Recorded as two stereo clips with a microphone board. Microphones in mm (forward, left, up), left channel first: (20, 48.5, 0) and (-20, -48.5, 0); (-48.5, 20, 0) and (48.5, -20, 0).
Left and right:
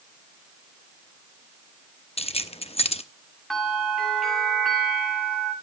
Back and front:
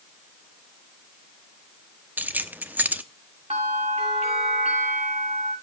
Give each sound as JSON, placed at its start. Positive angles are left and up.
{"t": 2.2, "sound": "keys jangling", "azimuth_deg": 50, "distance_m": 0.8}
{"t": 3.5, "sound": "a bell", "azimuth_deg": -20, "distance_m": 7.5}